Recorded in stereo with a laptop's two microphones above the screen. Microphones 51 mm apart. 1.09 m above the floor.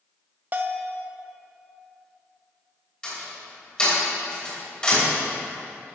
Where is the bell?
35° right (ahead or behind), 0.6 m.